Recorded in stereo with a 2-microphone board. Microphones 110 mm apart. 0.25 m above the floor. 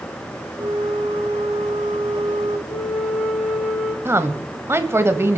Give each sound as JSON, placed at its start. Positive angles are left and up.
{"t": 0.6, "sound": "a flute", "side_deg": -65, "distance_m": 1.9}
{"t": 2.7, "sound": "a flute", "side_deg": 75, "distance_m": 2.5}
{"t": 4.0, "sound": "a woman speaking", "side_deg": -25, "distance_m": 1.0}